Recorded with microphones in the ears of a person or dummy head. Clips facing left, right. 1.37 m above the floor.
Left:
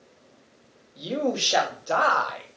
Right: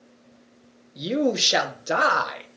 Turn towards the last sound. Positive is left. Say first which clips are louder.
# right 4 dB
turn(degrees=-25)  # may be behind; listen again after turning